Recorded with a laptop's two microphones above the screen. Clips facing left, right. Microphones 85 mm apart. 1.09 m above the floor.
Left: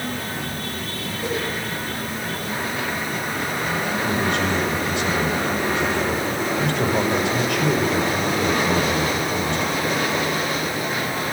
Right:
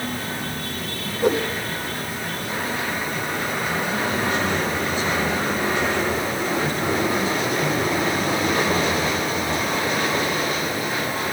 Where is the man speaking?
75° left (ahead or behind), 5.5 m.